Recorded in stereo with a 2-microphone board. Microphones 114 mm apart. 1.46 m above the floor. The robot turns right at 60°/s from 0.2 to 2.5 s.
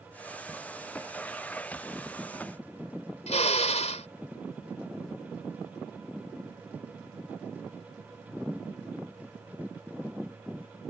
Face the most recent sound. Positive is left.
turn(degrees=80)